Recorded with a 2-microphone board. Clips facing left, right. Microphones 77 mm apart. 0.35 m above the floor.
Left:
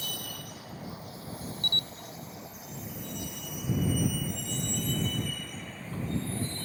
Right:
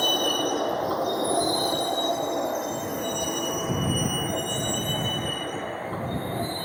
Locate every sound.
0.0 s a vehicle: 65° right (ahead or behind); by 6.7 s 50° right (ahead or behind)
1.6 s a camera shutter: 5° right (ahead or behind)